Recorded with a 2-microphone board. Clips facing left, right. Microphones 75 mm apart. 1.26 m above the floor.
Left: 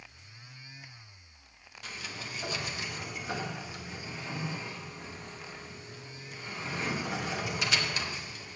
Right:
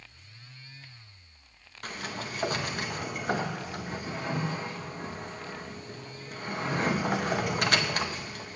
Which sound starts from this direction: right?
A sliding door, at 1.8 s.